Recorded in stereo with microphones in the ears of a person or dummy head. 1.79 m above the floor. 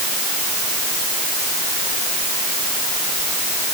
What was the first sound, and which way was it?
Only background noise.